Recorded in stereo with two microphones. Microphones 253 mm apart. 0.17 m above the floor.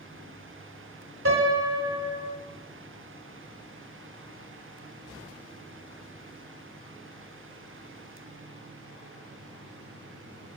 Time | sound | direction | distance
1.2 | a piano | 60° right (ahead or behind) | 0.7 m